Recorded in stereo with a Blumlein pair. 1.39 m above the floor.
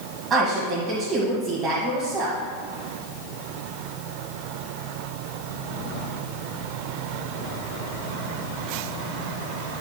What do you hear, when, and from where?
0.3 s a woman speaking: 25° right, 1.9 m